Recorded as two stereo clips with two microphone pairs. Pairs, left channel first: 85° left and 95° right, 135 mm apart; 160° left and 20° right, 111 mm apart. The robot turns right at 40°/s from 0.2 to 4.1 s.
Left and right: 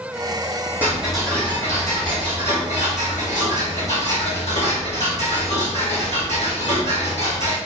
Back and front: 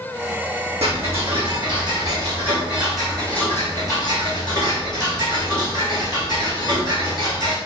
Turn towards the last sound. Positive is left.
turn(degrees=115)